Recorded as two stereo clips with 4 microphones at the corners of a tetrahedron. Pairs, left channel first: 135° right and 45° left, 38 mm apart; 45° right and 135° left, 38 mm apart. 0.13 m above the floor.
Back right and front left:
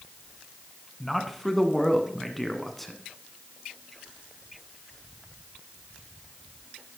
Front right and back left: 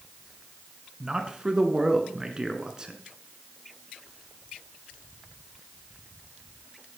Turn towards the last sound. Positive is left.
turn(degrees=145)